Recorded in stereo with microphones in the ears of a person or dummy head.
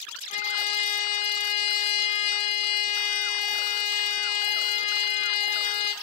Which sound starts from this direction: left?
A trumpet, at 0.3 s.